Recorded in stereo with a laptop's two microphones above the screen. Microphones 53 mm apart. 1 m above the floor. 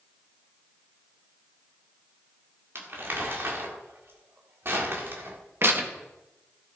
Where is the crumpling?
50° right (ahead or behind), 2 m.